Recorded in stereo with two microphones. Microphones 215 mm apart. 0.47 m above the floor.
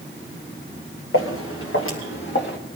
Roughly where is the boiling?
No boiling in this recording.